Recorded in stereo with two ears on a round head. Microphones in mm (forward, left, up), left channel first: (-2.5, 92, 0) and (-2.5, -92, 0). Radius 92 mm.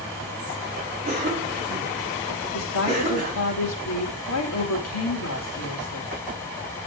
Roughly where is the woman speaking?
Left.